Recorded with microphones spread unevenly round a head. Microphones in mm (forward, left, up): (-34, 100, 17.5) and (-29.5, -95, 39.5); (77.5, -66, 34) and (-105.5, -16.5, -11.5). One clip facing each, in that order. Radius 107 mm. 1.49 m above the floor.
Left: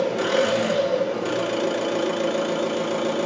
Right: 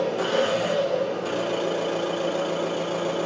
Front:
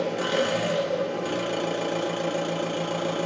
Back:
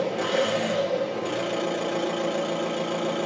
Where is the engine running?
30° left, 1.0 m.